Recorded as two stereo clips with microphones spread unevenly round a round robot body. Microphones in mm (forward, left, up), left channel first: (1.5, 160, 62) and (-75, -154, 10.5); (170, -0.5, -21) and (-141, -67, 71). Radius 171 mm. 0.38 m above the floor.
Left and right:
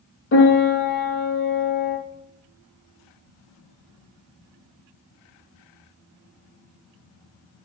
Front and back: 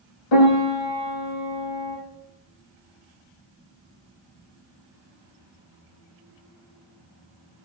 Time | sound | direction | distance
0.3 | a piano | 20° left | 5 m